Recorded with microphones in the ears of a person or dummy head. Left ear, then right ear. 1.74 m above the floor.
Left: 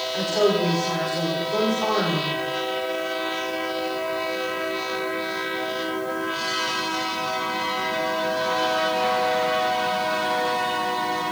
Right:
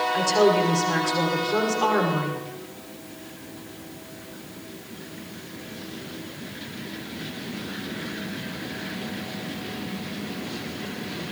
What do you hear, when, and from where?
0.1 s a woman speaking: 60° right (ahead or behind), 5.5 m